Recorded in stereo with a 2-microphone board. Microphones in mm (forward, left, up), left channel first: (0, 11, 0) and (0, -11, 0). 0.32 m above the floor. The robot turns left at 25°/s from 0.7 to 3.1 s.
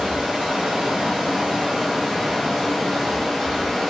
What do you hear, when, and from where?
0.0 s running water: 120° right, 2.0 m; by 3.9 s straight behind, 2.0 m